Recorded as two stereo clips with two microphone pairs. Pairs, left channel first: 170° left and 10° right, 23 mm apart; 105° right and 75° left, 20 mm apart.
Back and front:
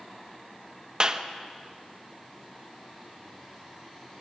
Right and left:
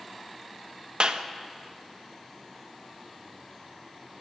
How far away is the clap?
About 1.1 m.